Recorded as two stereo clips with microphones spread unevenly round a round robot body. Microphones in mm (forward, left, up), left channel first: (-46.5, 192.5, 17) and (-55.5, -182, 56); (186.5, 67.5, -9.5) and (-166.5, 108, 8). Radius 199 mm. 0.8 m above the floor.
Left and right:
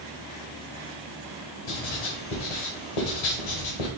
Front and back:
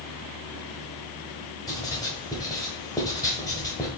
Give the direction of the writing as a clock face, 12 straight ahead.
10 o'clock.